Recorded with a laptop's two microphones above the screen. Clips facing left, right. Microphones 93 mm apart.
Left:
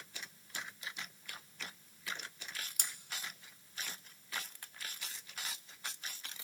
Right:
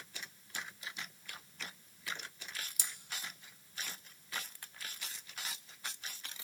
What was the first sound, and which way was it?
Cutlery clinking, 55° left (ahead or behind).